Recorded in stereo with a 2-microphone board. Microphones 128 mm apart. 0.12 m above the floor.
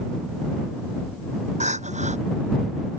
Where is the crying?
65° right (ahead or behind).